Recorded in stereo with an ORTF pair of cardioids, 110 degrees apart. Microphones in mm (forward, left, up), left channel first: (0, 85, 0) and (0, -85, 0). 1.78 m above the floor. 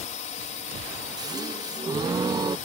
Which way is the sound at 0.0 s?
45° left.